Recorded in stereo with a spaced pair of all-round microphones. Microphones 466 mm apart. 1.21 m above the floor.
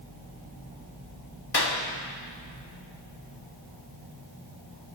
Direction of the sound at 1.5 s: 55° left (ahead or behind).